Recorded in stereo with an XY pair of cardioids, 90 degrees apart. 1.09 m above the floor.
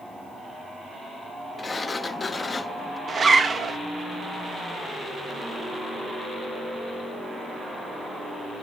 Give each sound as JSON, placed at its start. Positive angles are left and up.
{"t": 1.6, "sound": "a sliding door", "azimuth_deg": 30, "distance_m": 0.8}
{"t": 3.1, "sound": "a zipper", "azimuth_deg": -40, "distance_m": 1.1}